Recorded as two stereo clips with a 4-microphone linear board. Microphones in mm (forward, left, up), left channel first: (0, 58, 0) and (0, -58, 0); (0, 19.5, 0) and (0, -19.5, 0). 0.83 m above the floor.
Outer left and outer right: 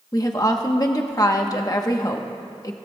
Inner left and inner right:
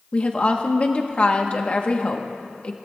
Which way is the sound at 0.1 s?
35° left (ahead or behind).